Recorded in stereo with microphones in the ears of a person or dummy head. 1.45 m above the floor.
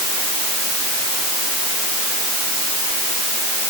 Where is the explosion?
I don't hear an explosion.